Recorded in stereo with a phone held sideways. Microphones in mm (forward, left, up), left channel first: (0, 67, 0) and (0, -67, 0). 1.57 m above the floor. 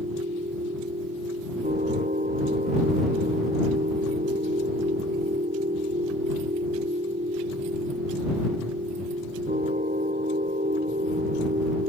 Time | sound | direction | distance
0.0 | a machine running | 80° right | ?